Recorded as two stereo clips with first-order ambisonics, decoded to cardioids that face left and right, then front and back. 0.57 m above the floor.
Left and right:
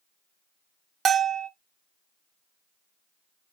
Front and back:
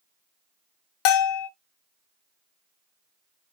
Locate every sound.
1.1 s a bell: 25° right, 0.7 m